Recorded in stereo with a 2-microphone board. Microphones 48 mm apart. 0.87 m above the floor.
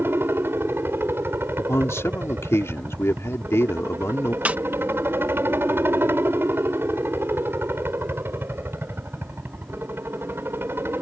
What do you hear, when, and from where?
0.0 s a helicopter: 50° right (ahead or behind)
1.6 s a man speaking: 70° left (ahead or behind)
4.5 s a snare drum: 30° right (ahead or behind)